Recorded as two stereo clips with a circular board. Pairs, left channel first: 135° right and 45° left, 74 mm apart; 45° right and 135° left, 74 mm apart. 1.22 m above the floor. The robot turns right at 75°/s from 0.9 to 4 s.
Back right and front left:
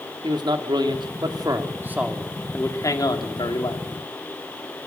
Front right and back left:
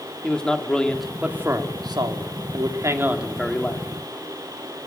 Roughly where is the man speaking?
Ahead left.